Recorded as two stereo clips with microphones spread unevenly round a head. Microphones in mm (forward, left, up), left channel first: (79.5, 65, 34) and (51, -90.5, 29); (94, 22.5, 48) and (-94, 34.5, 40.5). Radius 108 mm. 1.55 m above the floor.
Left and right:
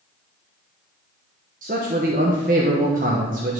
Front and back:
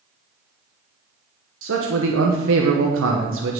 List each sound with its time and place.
1.6 s a man speaking: 155° right, 1.1 m